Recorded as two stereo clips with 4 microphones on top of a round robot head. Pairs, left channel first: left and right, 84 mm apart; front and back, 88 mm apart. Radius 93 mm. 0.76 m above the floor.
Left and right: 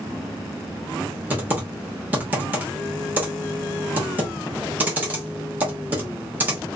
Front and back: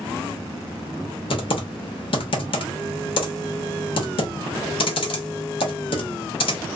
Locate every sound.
1.3 s typing on a keyboard: 20° right, 1.0 m